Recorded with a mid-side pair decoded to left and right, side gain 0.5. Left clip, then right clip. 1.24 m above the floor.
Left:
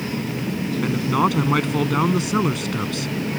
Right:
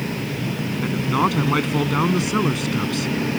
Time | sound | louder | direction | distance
0.8 | a man speaking | even | 5° left | ?